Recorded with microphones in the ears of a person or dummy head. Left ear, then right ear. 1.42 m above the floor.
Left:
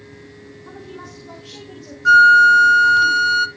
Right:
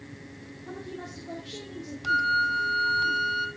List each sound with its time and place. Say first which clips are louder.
0.7 s a woman speaking: left 2 dB; 55° left (ahead or behind), 2.5 m
2.0 s a flute: left 16 dB; 65° left (ahead or behind), 0.5 m